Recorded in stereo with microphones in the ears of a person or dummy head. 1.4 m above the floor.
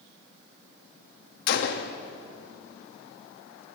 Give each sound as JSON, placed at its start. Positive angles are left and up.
{"t": 1.5, "sound": "a gunshot", "side_deg": 60, "distance_m": 1.1}